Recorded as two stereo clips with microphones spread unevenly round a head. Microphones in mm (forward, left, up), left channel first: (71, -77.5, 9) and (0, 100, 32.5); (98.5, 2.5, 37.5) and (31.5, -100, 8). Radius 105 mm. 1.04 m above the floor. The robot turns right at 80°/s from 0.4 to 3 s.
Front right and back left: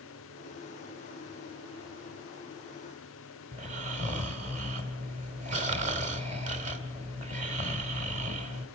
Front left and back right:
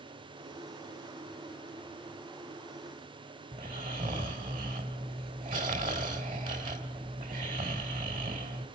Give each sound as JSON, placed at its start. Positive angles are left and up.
{"t": 3.5, "sound": "snoring", "azimuth_deg": 170, "distance_m": 3.0}